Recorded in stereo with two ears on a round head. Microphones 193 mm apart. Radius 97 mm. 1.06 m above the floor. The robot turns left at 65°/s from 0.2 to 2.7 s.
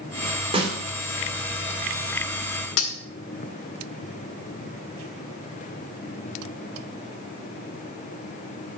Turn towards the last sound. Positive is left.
turn(degrees=70)  # may be behind; listen again after turning